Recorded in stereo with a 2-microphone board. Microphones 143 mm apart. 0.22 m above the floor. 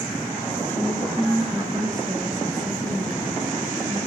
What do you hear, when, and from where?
0.7 s a woman speaking: 10° left (ahead or behind), 1.8 m; by 4.0 s 30° right (ahead or behind), 6 m